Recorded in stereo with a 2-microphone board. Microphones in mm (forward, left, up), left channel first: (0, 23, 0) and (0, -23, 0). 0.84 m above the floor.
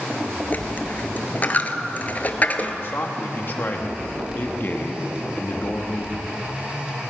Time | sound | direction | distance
0.5 | a dropped coin | 35° left (ahead or behind) | 0.9 m
2.8 | a man speaking | 45° left (ahead or behind) | 1.4 m